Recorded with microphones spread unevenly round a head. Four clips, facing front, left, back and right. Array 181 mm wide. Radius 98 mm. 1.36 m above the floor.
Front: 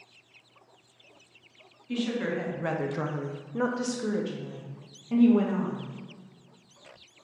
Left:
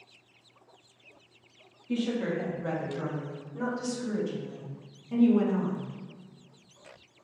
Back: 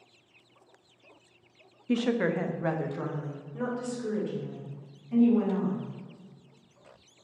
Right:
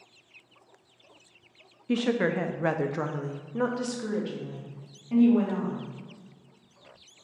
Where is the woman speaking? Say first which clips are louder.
Right 4 dB, back 3 dB; 120° right, 0.6 m; by 5.9 s 20° right, 2 m.